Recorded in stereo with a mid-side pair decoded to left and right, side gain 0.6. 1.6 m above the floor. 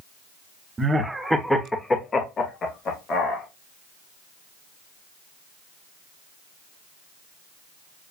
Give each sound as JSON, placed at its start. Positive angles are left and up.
{"t": 0.8, "sound": "laughter", "azimuth_deg": -20, "distance_m": 0.8}